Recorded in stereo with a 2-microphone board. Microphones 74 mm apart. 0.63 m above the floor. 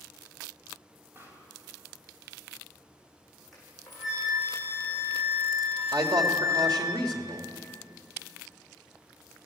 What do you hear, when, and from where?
1.1 s a pop: 30° right (ahead or behind), 4 m
3.5 s a flute: centre (ahead or behind), 7.5 m
5.9 s a man speaking: 70° right (ahead or behind), 2.5 m